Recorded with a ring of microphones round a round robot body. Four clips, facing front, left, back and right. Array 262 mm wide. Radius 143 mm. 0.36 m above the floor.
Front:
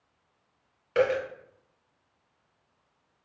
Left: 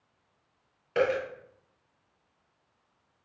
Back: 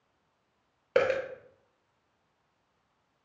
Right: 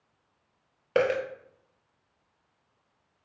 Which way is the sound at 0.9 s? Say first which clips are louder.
Right 2 dB, front 1 dB; 130° right.